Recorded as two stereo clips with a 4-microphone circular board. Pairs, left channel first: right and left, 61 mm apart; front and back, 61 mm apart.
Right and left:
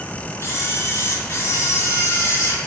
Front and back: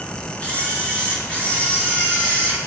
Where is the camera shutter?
65° right, 4 m.